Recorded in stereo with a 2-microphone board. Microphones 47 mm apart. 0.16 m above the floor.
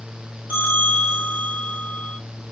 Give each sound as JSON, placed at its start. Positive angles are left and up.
{"t": 0.5, "sound": "a bell", "side_deg": -35, "distance_m": 10.0}